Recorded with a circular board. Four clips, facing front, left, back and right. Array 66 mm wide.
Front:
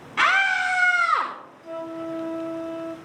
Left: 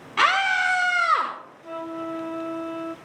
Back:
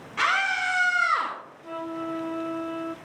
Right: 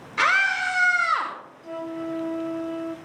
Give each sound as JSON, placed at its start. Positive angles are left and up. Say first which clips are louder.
{"t": 0.2, "sound": "a scream", "louder": "left 1 dB, front 4 dB", "azimuth_deg": 75, "distance_m": 4.0}
{"t": 1.6, "sound": "a flute", "louder": "even, front 1 dB", "azimuth_deg": 120, "distance_m": 0.9}